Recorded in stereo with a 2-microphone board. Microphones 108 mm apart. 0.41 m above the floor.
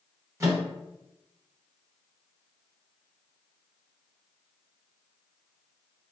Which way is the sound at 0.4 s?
30° right (ahead or behind).